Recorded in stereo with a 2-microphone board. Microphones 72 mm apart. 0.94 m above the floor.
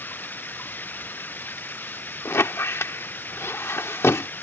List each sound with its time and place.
0.0 s running water: 25° left (ahead or behind)
2.2 s a squeak: 35° left (ahead or behind)